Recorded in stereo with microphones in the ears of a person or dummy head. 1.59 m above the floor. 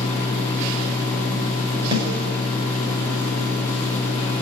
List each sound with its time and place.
0.0 s a machine running: 10° left (ahead or behind), 5 m
1.9 s a snare drum: 25° right (ahead or behind), 4.5 m